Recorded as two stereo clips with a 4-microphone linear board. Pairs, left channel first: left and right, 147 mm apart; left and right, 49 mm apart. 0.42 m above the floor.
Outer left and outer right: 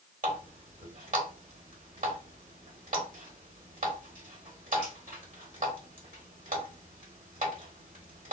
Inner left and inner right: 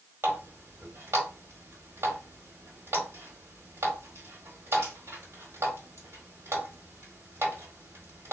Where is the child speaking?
No child speaking in this recording.